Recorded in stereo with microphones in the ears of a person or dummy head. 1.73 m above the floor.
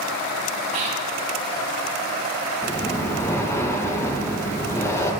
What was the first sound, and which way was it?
Whispering, 35° right (ahead or behind).